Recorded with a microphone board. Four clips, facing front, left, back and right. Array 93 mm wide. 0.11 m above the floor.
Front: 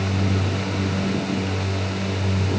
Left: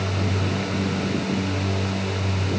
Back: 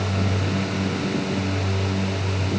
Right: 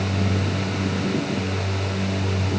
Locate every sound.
Only background noise.